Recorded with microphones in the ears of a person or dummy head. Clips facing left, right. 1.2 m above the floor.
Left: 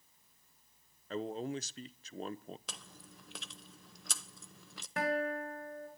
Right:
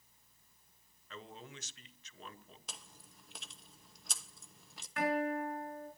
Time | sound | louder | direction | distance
1.1 | a man speaking | left 13 dB | 35° left (ahead or behind) | 0.7 m
2.7 | chewing | left 4 dB | 65° left (ahead or behind) | 0.8 m
5.0 | a guitar | right 1 dB | 30° left (ahead or behind) | 6 m